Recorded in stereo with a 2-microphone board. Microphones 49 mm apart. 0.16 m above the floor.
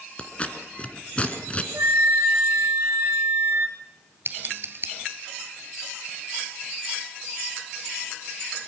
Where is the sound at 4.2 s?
50° right (ahead or behind), 2 m.